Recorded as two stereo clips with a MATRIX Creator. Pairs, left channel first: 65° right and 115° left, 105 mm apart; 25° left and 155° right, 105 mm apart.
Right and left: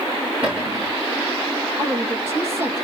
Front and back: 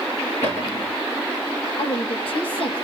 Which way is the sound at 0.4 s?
40° left.